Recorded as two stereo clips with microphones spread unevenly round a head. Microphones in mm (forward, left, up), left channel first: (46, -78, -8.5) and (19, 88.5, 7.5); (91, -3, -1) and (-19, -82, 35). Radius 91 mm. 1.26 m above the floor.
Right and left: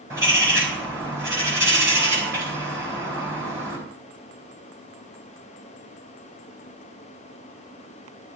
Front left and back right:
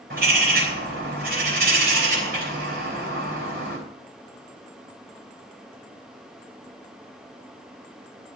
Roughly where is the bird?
Behind.